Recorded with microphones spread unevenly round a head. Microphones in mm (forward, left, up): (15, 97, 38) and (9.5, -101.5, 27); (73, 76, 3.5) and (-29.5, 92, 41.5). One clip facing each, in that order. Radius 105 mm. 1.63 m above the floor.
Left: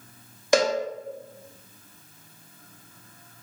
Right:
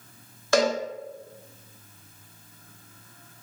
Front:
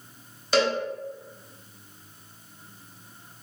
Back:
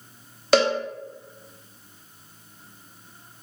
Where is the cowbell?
165° left, 0.7 m.